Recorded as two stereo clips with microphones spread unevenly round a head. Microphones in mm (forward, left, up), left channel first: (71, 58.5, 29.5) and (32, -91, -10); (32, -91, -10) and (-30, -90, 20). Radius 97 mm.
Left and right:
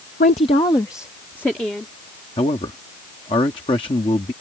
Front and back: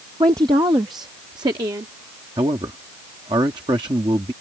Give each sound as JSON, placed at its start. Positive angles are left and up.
{"t": 0.2, "sound": "a woman speaking", "azimuth_deg": 125}
{"t": 2.4, "sound": "a man speaking", "azimuth_deg": 140}